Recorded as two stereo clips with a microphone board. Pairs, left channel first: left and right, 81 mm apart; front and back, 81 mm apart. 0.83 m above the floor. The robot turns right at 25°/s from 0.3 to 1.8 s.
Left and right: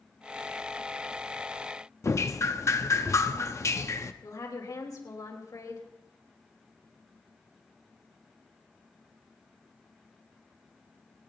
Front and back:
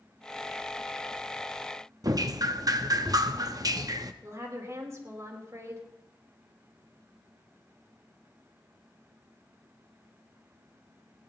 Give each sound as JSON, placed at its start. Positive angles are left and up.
{"t": 2.0, "sound": "dripping", "azimuth_deg": 140, "distance_m": 0.8}
{"t": 4.2, "sound": "a woman speaking", "azimuth_deg": 130, "distance_m": 3.5}